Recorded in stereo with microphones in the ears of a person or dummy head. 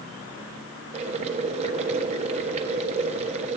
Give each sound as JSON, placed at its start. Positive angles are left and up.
{"t": 0.9, "sound": "boiling", "side_deg": -35, "distance_m": 1.4}